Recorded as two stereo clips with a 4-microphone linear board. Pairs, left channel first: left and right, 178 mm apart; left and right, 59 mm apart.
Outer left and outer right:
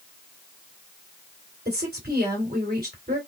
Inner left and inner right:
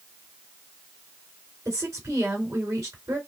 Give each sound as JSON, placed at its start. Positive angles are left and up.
{"t": 1.6, "sound": "a woman speaking", "side_deg": -60, "distance_m": 2.5}